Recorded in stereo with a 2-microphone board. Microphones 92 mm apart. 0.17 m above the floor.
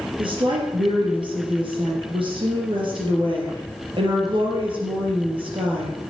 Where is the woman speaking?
65° right (ahead or behind), 4 m.